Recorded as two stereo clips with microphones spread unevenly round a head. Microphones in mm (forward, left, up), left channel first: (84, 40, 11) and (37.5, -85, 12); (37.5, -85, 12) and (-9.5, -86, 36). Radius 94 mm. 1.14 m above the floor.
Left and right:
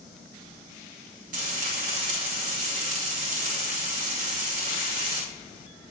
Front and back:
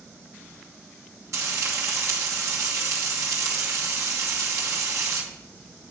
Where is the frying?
160° right, 2.5 m.